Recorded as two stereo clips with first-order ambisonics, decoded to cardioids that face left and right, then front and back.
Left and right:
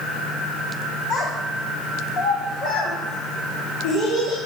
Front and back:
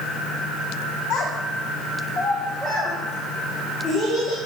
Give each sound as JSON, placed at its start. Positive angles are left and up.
{"t": 1.1, "sound": "a child speaking", "azimuth_deg": 45, "distance_m": 1.2}